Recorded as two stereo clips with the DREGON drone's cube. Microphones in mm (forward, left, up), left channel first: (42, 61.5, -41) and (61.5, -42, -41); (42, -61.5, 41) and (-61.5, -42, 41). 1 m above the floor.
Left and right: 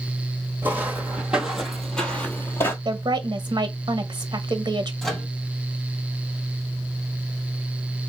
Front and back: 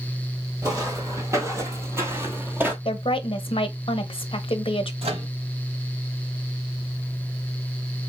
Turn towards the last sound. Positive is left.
turn(degrees=-175)